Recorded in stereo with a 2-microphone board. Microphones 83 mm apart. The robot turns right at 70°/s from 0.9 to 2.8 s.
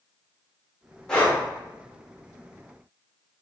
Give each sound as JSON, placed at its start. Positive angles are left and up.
{"t": 1.1, "sound": "breathing", "side_deg": 10, "distance_m": 1.3}